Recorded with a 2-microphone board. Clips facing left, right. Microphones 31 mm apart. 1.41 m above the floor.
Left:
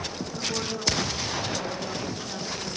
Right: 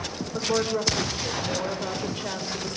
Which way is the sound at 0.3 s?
75° right (ahead or behind).